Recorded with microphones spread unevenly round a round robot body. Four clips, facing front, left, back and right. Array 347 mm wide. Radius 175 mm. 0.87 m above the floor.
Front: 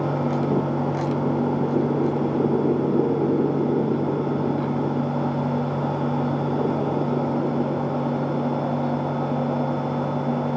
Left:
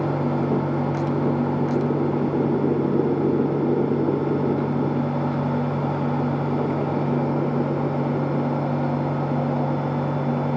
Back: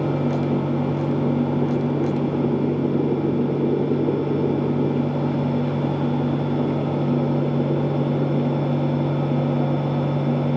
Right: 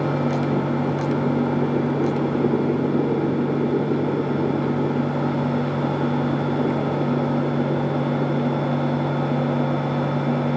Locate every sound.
Only background noise.